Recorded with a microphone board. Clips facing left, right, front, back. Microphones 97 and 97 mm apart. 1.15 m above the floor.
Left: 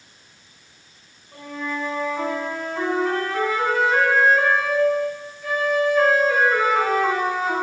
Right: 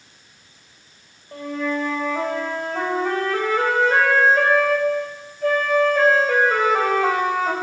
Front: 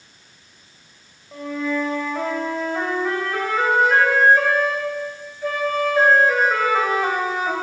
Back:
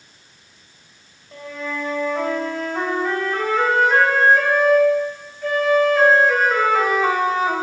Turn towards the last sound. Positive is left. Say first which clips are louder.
# right 5 dB, front 5 dB
turn(degrees=-80)